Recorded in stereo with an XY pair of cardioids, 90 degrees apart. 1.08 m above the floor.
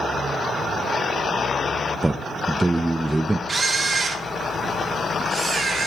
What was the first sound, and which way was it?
A man speaking, 15° right.